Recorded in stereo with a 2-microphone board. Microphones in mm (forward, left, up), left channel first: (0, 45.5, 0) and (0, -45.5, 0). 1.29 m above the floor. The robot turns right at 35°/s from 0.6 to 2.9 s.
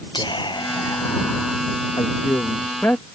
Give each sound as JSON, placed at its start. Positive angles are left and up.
{"t": 0.1, "sound": "whispering", "azimuth_deg": 125}
{"t": 2.0, "sound": "a man speaking", "azimuth_deg": 125}